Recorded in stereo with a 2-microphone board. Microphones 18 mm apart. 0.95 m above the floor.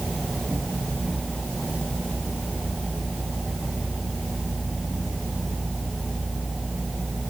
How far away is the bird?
I don't hear a bird.